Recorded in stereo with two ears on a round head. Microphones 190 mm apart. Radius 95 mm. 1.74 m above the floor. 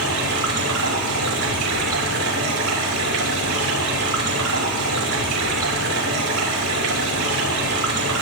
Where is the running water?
80° right, 4.5 m.